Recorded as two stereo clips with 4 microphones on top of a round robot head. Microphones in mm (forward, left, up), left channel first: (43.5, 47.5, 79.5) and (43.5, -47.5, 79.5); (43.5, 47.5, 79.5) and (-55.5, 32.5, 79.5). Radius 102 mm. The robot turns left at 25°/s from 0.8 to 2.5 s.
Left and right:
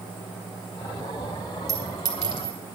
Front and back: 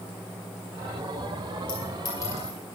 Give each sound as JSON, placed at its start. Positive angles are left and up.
{"t": 1.7, "sound": "a clink", "azimuth_deg": -35, "distance_m": 4.0}